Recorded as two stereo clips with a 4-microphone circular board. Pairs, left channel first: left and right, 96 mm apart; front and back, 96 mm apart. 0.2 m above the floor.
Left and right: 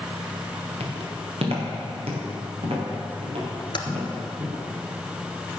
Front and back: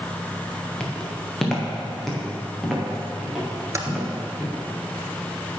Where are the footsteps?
85° right, 3 m; by 4.6 s 95° right, 6 m.